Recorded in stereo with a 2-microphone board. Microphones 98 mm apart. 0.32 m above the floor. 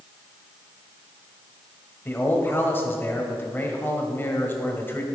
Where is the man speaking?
20° left (ahead or behind), 1.8 m.